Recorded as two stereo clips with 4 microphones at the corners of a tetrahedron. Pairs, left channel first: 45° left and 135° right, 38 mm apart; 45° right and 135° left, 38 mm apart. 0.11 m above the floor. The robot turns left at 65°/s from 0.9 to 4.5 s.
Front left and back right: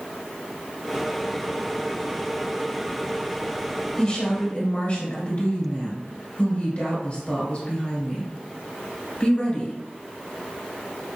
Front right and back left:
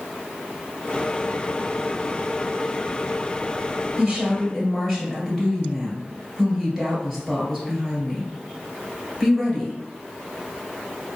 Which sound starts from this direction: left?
A woman speaking, at 4.0 s.